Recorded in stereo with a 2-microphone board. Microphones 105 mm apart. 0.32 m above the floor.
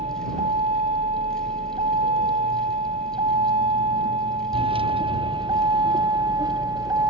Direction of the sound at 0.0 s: 85° right.